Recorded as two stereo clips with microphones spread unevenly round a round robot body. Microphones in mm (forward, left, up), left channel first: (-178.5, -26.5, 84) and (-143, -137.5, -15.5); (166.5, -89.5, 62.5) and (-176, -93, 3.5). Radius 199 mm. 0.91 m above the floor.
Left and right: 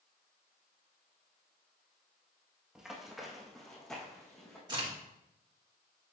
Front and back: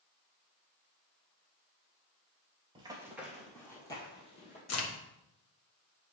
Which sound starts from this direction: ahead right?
A crack, at 4.7 s.